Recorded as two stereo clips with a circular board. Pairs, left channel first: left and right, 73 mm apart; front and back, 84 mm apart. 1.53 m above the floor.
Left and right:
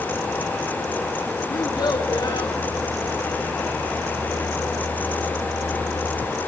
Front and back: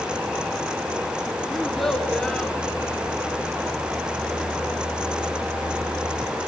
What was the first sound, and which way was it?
A child speaking, 90° left.